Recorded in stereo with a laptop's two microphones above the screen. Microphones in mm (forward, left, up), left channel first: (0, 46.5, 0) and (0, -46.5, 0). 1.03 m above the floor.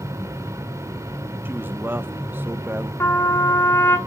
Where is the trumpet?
30° left (ahead or behind), 1.9 m.